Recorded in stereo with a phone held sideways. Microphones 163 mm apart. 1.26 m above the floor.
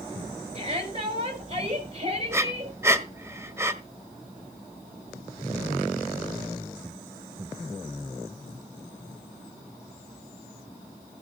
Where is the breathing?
15° right (ahead or behind), 1.3 m.